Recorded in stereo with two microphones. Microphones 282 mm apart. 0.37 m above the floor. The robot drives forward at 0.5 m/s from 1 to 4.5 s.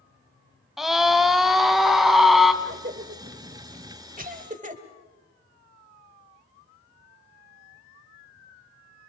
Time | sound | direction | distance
0.8 | a scream | centre (ahead or behind) | 2 m
2.6 | a cough | 35° right (ahead or behind) | 1.1 m